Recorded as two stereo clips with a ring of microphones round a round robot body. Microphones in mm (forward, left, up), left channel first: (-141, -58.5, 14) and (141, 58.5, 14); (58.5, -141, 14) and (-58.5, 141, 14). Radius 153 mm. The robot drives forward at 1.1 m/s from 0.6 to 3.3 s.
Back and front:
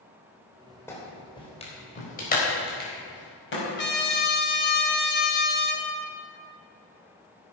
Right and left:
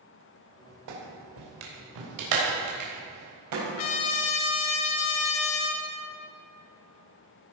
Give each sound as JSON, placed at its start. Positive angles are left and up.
{"t": 0.9, "sound": "a clap", "azimuth_deg": 120, "distance_m": 3.0}
{"t": 3.8, "sound": "a trumpet", "azimuth_deg": -100, "distance_m": 1.9}